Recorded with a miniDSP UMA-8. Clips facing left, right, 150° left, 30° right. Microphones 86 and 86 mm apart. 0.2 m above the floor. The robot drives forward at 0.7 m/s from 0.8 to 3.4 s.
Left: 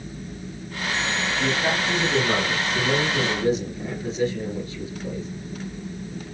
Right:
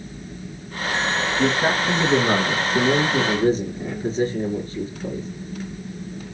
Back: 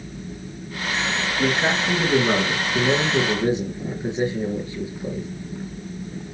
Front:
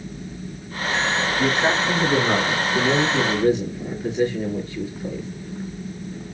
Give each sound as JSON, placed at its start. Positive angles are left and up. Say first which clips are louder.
{"t": 1.4, "sound": "a man speaking", "louder": "right 4 dB, even", "azimuth_deg": -120, "distance_m": 3.0}